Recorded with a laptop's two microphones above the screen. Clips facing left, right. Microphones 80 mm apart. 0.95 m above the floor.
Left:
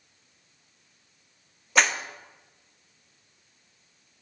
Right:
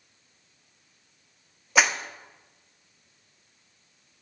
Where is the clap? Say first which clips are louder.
Right 1 dB; 5° right (ahead or behind), 1.2 m.